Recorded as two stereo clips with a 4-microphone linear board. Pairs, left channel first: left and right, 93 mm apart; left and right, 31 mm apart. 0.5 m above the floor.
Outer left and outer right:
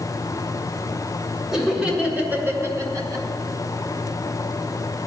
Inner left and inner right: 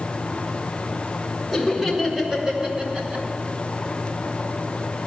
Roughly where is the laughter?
Centre.